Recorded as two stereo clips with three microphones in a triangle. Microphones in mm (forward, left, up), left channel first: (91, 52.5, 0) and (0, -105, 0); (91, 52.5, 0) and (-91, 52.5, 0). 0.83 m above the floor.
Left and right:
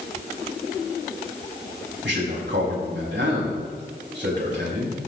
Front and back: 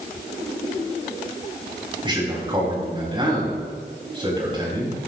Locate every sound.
2.0 s a man speaking: 115° right, 5.5 m